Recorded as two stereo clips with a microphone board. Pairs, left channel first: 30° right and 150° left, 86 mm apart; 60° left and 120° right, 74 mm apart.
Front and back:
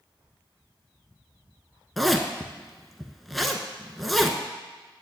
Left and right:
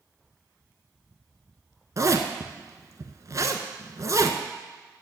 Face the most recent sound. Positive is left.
turn(degrees=-120)